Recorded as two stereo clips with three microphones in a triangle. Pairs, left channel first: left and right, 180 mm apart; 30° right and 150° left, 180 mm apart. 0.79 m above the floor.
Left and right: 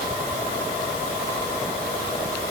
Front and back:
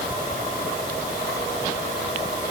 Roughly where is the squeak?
No squeak in this recording.